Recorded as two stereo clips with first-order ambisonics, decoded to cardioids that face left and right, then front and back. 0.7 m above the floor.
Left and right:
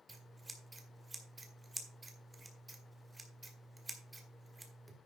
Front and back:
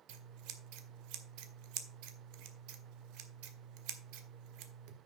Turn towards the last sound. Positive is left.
turn(degrees=-170)